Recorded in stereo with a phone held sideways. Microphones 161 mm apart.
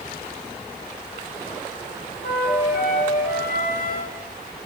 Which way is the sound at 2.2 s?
75° left (ahead or behind).